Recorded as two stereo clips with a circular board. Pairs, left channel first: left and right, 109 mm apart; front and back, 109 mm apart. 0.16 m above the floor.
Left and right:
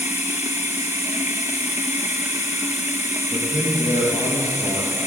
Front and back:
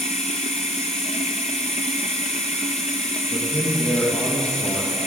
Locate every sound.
0.0 s running water: 20° right, 1.5 m
3.3 s a man speaking: 30° right, 5 m